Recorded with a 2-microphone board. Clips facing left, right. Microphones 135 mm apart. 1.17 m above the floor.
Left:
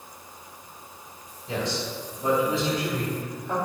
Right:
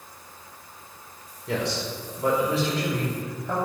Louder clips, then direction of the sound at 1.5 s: Right 1 dB; 70° right (ahead or behind).